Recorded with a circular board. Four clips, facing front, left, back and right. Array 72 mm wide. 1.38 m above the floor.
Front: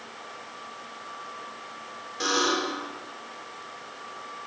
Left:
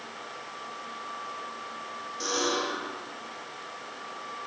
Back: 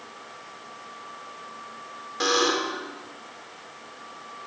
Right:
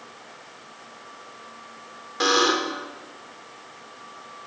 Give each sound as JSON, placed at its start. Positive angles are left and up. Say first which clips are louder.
{"t": 2.2, "sound": "a buzzer", "louder": "right 8 dB, back 2 dB", "azimuth_deg": -110, "distance_m": 5.0}